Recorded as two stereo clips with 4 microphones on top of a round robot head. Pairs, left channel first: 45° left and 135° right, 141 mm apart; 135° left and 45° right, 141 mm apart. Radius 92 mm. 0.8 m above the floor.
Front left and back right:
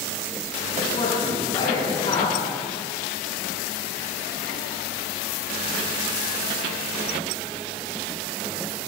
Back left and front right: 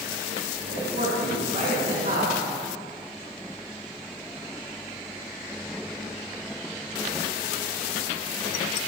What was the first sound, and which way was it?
A man speaking, 10° right.